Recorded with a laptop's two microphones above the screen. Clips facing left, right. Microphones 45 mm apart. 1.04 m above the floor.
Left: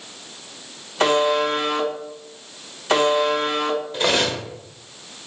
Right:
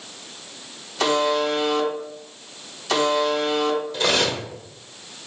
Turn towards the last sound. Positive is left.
turn(degrees=25)  # may be behind; listen again after turning